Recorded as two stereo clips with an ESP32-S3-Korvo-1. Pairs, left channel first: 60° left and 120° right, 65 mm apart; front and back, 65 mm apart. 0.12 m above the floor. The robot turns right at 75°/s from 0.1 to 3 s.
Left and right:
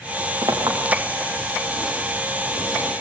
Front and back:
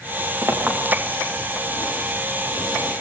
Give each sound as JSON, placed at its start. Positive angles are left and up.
{"t": 0.4, "sound": "a clink", "azimuth_deg": -140, "distance_m": 7.0}